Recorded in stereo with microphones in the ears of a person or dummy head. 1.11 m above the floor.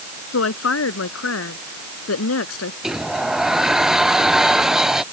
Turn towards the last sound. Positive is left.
turn(degrees=0)  # may be behind; listen again after turning